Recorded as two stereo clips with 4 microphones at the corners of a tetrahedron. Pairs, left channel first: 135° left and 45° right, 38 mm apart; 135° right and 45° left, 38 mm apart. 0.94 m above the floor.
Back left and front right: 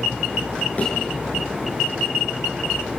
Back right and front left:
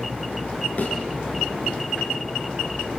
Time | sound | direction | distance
0.8 | a thud | 175° right | 7 m